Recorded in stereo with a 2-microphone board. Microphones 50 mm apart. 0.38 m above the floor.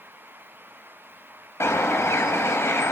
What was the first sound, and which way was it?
A bird, 75° left (ahead or behind).